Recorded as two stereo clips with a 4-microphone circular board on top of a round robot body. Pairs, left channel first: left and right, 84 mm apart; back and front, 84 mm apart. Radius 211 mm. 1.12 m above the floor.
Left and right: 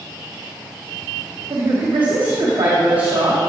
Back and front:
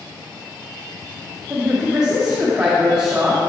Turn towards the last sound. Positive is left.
turn(degrees=-80)